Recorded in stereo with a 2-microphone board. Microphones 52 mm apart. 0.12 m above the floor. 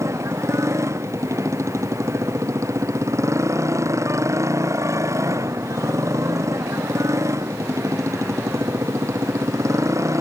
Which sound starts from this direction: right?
A motorcycle, at 0.0 s.